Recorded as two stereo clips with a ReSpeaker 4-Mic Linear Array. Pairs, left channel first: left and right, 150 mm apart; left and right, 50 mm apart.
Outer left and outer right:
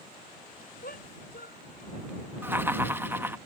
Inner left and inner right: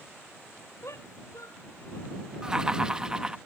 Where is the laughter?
15° right (ahead or behind).